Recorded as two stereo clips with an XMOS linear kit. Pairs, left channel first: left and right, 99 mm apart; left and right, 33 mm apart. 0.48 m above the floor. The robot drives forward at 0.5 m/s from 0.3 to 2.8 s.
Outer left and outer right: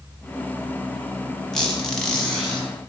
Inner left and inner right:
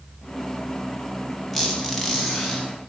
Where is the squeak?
5° left (ahead or behind), 0.9 m.